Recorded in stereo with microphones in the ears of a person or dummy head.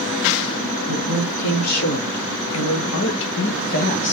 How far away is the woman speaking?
About 1.7 m.